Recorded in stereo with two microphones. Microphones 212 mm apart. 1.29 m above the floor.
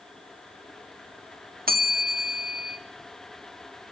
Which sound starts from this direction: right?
A bell, at 1.7 s.